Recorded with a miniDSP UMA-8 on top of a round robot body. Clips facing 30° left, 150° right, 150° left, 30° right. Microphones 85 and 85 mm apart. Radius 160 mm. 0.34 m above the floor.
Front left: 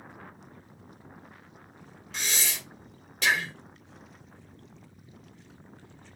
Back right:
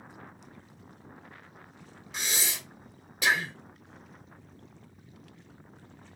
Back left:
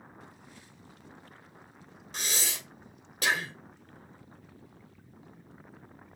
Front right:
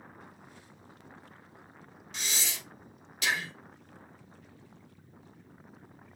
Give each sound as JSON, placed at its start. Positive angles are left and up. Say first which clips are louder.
{"t": 2.1, "sound": "breathing", "louder": "front left 1 dB, back left 2 dB", "azimuth_deg": 135, "distance_m": 2.0}